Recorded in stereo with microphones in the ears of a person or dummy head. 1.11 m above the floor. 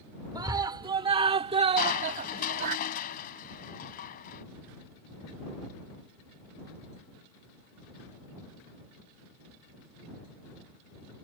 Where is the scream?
20° right (ahead or behind); by 2.8 s 45° right (ahead or behind).